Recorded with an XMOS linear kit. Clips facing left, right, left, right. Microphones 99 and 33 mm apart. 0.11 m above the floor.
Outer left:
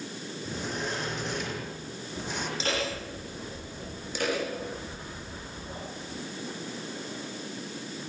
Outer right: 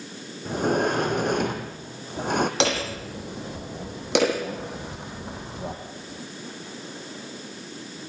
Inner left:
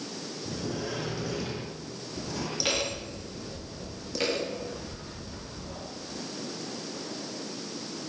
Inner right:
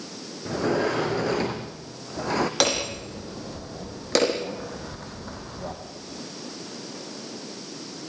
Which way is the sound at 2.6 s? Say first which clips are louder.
Outer right 6 dB, inner right 5 dB; 75° right (ahead or behind).